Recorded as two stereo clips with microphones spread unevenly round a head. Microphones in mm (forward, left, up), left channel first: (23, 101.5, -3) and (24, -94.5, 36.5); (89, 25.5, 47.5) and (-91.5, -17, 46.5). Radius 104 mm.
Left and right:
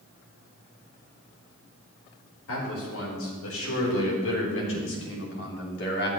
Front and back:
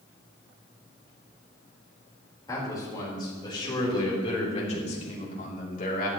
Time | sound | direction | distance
2.5 | a man speaking | 85° left | 4.5 m